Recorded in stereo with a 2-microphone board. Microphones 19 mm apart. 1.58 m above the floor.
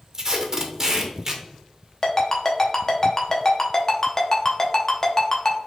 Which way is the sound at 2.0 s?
30° left (ahead or behind).